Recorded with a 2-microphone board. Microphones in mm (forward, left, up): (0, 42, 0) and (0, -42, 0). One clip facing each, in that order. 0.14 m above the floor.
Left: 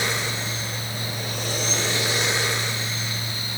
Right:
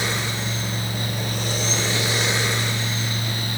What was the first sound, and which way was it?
Only background noise.